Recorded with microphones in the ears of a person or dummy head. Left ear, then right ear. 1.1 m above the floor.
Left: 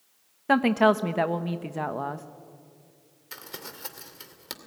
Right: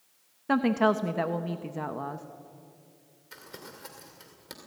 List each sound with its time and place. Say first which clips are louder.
0.5 s a woman speaking: left 4 dB; 20° left (ahead or behind), 0.9 m
3.3 s crumpling: left 5 dB; 25° left (ahead or behind), 2 m